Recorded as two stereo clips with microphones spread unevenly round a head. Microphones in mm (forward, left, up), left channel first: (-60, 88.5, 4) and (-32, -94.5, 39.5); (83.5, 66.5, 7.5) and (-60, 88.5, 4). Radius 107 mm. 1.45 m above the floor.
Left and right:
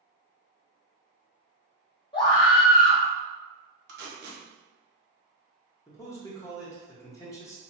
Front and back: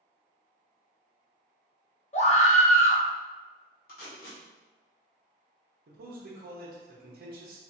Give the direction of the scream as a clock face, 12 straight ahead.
11 o'clock.